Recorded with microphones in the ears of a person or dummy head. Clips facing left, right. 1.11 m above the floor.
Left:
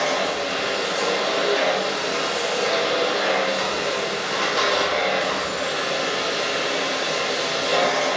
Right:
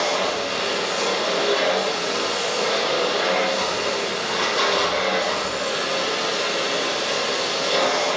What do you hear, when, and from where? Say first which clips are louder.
0.0 s a machine running: even; 15° left (ahead or behind), 3 m